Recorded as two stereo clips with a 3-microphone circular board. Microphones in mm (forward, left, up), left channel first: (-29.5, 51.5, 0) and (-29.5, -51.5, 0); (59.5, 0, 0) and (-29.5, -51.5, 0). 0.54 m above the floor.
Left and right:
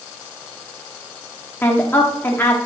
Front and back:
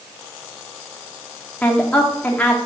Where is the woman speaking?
80° left, 1.0 m.